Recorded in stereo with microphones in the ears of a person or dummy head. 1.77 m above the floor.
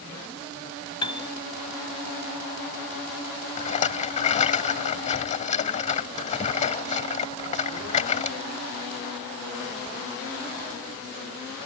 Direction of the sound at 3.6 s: 40° left (ahead or behind).